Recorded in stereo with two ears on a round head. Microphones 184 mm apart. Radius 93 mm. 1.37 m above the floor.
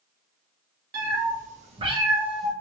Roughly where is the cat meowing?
Right.